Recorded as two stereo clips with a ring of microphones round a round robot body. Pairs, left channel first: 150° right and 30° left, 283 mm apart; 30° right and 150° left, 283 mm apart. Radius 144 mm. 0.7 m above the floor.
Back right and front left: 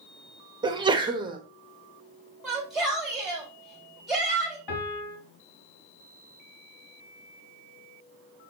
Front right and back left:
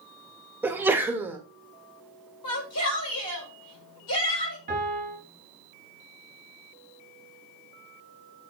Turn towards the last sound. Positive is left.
turn(degrees=-145)